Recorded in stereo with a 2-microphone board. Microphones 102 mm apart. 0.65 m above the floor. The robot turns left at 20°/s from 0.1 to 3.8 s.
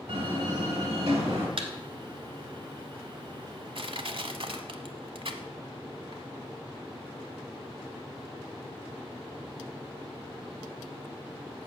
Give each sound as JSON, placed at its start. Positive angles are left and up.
{"t": 0.1, "sound": "a door slam", "side_deg": -80, "distance_m": 2.5}
{"t": 1.6, "sound": "a thud", "side_deg": -70, "distance_m": 1.3}
{"t": 3.8, "sound": "crushing", "side_deg": -60, "distance_m": 0.8}